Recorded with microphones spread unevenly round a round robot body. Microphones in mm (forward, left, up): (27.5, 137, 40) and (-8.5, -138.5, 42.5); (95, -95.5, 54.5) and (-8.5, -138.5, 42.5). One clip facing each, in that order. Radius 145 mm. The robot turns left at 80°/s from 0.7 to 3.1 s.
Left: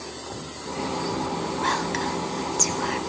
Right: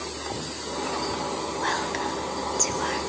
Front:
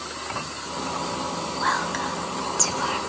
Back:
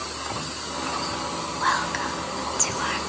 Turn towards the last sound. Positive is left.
turn(degrees=15)